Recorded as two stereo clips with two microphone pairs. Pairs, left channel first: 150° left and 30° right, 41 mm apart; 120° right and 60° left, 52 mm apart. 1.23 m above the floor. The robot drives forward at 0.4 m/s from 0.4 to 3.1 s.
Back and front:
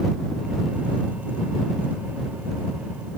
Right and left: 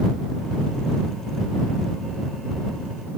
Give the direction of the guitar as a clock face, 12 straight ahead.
I don't hear a guitar.